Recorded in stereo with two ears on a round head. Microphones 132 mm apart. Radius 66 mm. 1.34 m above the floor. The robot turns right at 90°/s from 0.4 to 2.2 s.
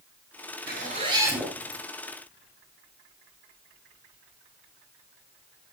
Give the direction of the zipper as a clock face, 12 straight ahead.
2 o'clock.